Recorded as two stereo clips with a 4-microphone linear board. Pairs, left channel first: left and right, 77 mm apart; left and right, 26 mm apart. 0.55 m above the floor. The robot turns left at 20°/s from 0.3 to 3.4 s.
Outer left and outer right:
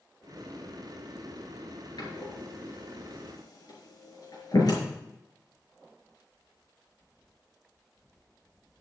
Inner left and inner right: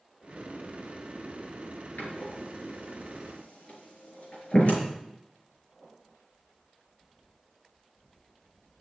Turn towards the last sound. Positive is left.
turn(degrees=55)  # may be behind; listen again after turning